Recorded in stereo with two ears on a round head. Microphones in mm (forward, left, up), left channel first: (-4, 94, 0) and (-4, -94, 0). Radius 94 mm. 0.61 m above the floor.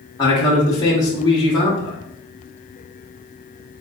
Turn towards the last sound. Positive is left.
turn(degrees=20)  # may be behind; listen again after turning